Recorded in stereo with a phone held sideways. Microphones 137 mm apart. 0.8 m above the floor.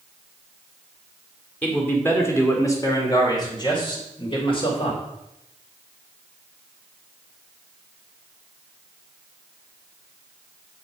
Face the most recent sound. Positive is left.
turn(degrees=45)  # may be behind; listen again after turning